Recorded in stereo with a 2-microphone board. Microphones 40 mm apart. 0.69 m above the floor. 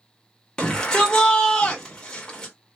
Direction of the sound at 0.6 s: 20° left (ahead or behind).